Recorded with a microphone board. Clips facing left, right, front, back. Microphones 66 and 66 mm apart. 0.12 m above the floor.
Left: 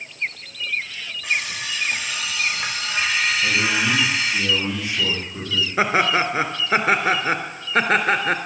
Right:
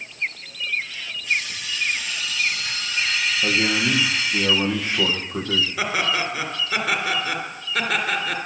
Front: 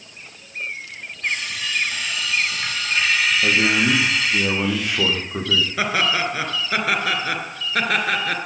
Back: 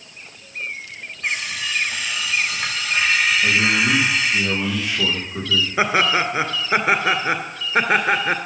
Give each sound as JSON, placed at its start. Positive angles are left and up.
{"t": 1.2, "sound": "an alarm clock", "azimuth_deg": 105, "distance_m": 5.5}
{"t": 3.4, "sound": "a man speaking", "azimuth_deg": -35, "distance_m": 6.0}
{"t": 5.8, "sound": "laughter", "azimuth_deg": 125, "distance_m": 2.0}